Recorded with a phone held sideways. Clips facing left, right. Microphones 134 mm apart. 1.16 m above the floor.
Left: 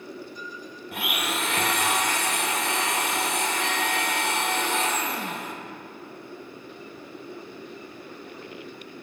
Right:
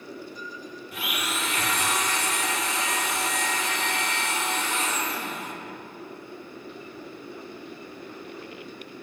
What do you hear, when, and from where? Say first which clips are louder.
0.9 s a blender: left 3 dB; 60° left (ahead or behind), 1.5 m